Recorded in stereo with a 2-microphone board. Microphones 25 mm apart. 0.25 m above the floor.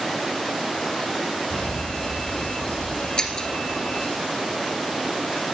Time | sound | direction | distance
1.5 | an alarm | 50° left (ahead or behind) | 5 m
3.2 | breaking glass | 35° left (ahead or behind) | 1.9 m